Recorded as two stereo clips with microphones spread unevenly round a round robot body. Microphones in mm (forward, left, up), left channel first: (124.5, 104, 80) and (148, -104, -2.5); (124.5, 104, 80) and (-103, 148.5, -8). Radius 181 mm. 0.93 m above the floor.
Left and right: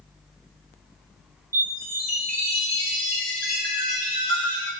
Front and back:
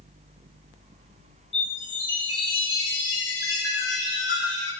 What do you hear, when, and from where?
1.5 s a chime: 20° right, 0.9 m